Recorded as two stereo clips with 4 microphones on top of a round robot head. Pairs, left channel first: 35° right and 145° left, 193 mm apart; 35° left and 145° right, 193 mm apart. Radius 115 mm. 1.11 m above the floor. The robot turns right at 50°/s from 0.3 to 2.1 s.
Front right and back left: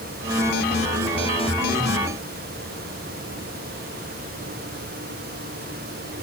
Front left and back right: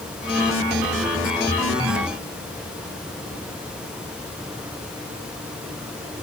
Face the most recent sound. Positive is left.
No sound to turn to.